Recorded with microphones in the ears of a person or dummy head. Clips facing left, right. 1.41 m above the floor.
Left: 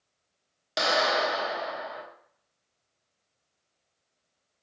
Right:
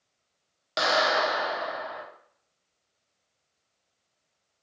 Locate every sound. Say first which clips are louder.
0.8 s a clap: right 1 dB; 5° left (ahead or behind), 0.9 m